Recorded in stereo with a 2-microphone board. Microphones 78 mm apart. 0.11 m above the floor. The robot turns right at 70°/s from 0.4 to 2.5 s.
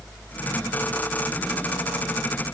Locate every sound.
Only background noise.